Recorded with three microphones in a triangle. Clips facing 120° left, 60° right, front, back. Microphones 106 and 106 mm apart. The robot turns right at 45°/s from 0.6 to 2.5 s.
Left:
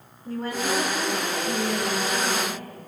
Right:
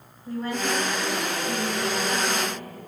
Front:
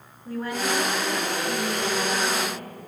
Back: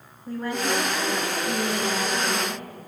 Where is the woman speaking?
70° left, 6 m; by 2.9 s 155° left, 6 m.